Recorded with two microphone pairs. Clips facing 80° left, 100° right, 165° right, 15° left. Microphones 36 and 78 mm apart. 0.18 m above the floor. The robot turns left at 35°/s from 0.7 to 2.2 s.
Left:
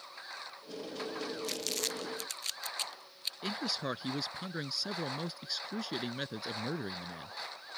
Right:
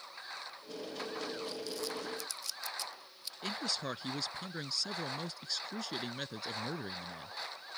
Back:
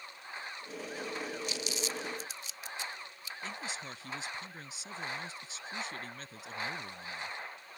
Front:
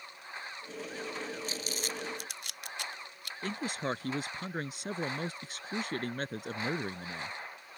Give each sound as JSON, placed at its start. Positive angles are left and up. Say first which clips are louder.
{"t": 1.4, "sound": "crumpling", "louder": "left 2 dB, back 1 dB", "azimuth_deg": 65}
{"t": 3.4, "sound": "a man speaking", "louder": "left 1 dB, front 8 dB", "azimuth_deg": 0}